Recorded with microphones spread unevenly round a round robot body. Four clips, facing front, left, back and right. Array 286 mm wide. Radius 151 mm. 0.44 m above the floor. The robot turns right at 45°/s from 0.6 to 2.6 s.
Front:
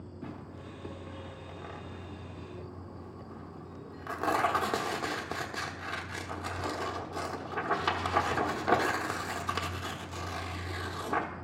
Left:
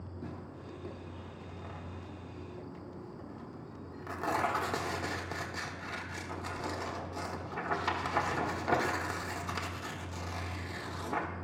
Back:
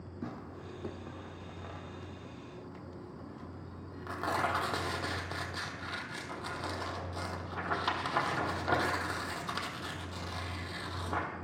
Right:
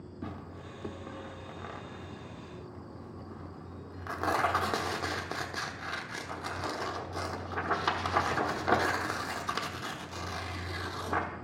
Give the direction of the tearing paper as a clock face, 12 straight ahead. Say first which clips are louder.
Right 3 dB, back 2 dB; 4 o'clock.